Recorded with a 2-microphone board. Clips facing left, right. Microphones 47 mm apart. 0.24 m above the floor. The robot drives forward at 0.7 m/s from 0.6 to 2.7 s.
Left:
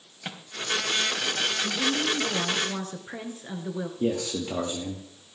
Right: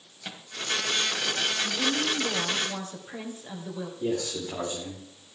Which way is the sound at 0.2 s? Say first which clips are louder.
Left 3 dB; 25° left (ahead or behind).